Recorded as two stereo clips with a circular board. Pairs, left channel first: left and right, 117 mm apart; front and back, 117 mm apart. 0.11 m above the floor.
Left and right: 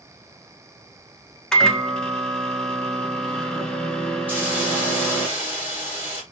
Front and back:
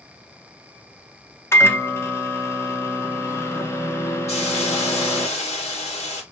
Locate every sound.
1.5 s a microwave: 20° left, 0.8 m
4.3 s a hiss: 15° right, 3 m